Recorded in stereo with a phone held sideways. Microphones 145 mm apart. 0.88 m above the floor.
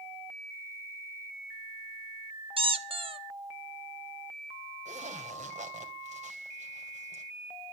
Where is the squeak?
40° right (ahead or behind), 0.8 m.